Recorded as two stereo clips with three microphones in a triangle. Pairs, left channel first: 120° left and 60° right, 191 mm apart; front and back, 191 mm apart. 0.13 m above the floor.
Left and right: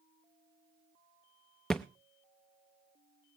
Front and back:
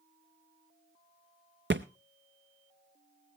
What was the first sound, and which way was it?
A thud, 155° right.